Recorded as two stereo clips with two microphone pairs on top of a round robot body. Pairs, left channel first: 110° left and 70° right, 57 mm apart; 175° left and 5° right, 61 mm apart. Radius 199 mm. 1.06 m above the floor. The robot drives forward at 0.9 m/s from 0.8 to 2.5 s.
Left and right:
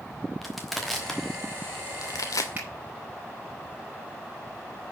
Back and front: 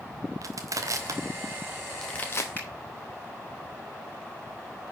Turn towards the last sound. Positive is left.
turn(degrees=-125)